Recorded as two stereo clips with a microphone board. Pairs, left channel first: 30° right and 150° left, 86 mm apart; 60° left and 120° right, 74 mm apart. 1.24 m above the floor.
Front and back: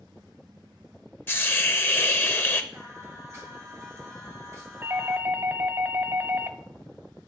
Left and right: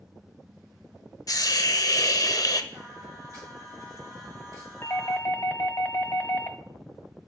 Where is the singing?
155° right, 2.5 m.